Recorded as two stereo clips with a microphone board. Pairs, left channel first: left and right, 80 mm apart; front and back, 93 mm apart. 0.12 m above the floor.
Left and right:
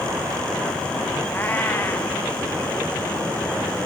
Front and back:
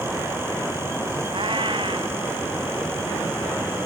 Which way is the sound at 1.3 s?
155° left.